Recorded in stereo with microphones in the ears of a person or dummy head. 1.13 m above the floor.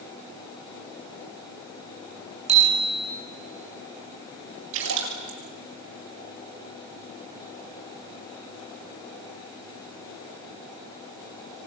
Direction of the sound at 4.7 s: 65° right (ahead or behind).